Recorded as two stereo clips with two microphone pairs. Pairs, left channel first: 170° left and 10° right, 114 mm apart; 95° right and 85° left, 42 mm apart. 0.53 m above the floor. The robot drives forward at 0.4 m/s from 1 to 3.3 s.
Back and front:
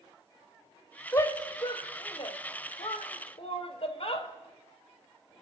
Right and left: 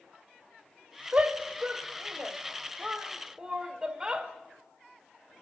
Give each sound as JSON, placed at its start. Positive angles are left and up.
{"t": 1.1, "sound": "a shout", "azimuth_deg": 120, "distance_m": 1.0}